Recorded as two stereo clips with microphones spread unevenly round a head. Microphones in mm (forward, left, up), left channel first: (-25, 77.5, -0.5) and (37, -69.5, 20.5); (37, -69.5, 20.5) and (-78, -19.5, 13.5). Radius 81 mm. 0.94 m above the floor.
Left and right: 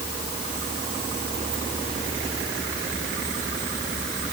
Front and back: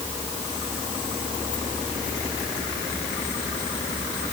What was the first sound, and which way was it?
Only background noise.